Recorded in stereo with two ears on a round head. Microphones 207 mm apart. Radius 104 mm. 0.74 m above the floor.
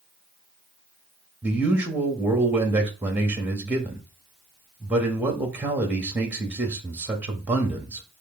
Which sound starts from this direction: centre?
A man speaking, at 1.4 s.